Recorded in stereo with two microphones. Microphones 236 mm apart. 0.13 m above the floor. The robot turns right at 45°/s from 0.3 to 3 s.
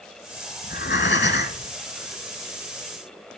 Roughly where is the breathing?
Left.